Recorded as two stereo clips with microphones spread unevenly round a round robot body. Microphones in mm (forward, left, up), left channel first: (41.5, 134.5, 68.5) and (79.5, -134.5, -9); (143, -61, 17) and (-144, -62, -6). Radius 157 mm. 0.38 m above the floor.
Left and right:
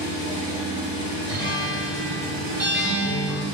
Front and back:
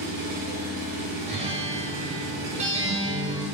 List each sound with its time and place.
0.0 s an engine running: 175° left, 1.4 m
1.3 s a guitar: 140° right, 0.9 m